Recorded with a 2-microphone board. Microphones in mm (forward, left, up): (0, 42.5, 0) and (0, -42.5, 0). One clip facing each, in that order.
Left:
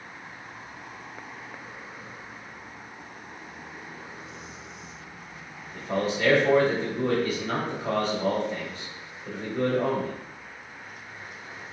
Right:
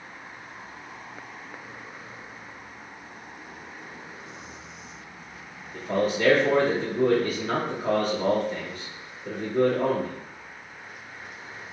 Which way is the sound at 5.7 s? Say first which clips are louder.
Right 2 dB; 40° right (ahead or behind).